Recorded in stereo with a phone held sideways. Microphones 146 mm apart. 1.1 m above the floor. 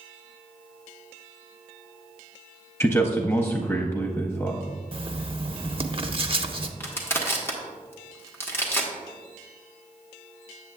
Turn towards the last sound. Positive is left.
turn(degrees=15)  # may be behind; listen again after turning